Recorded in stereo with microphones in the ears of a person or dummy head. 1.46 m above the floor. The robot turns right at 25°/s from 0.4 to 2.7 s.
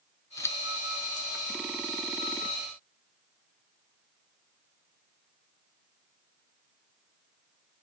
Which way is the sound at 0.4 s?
20° left (ahead or behind).